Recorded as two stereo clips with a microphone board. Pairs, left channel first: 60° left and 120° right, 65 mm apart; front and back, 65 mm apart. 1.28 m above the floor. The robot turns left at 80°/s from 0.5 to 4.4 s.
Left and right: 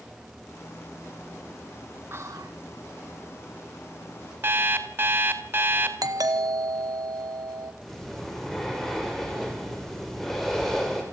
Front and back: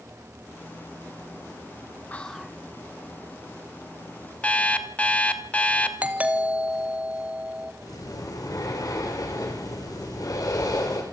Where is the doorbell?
110° right, 1.5 m.